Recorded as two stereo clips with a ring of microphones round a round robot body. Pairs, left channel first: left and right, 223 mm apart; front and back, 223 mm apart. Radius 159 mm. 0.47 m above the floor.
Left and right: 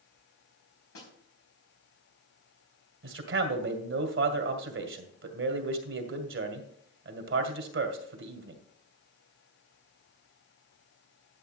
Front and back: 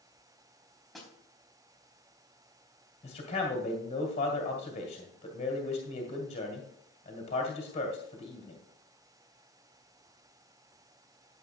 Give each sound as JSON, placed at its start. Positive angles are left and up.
{"t": 0.9, "sound": "a snare drum", "azimuth_deg": 90, "distance_m": 4.0}
{"t": 3.0, "sound": "a man speaking", "azimuth_deg": -65, "distance_m": 2.0}